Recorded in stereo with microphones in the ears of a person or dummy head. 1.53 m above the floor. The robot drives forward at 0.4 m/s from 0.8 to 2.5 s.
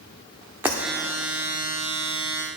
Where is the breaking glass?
10° right (ahead or behind), 1.3 m.